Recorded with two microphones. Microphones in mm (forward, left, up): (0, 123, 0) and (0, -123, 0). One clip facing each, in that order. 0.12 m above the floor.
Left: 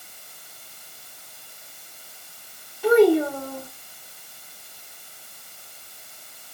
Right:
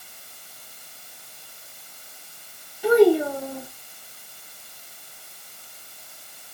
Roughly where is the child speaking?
Centre.